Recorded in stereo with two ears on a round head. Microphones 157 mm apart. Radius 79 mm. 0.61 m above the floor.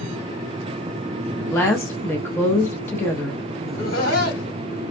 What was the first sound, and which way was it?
A woman speaking, 10° left (ahead or behind).